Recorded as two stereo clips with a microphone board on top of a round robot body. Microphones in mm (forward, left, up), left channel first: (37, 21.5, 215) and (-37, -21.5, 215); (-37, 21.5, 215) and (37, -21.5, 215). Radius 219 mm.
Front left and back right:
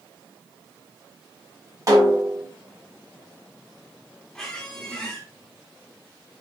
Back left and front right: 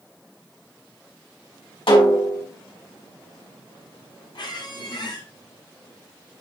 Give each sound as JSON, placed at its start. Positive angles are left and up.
{"t": 1.9, "sound": "a snare drum", "azimuth_deg": 155, "distance_m": 3.0}
{"t": 4.3, "sound": "a squeak", "azimuth_deg": 115, "distance_m": 1.8}